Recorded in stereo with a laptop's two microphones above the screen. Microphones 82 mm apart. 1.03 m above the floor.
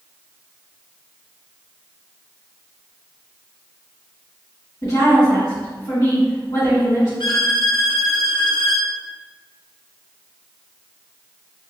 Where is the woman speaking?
60° left (ahead or behind), 1.8 m.